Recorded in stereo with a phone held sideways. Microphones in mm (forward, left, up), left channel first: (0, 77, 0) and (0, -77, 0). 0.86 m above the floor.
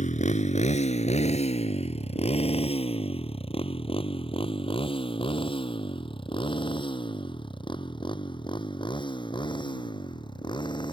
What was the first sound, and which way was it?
A motorcycle, 60° left (ahead or behind).